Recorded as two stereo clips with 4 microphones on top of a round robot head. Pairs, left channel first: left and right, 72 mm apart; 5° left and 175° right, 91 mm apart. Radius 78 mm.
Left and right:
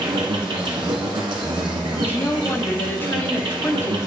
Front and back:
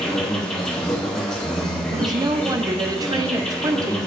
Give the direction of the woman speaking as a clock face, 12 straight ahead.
7 o'clock.